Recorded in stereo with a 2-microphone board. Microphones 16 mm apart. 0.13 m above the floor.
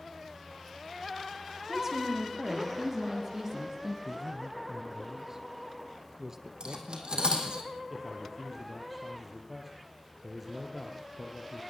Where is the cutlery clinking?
70° right (ahead or behind), 4 m.